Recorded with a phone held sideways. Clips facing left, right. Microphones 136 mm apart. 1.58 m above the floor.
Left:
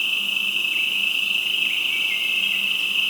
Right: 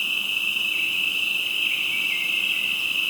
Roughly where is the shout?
I don't hear a shout.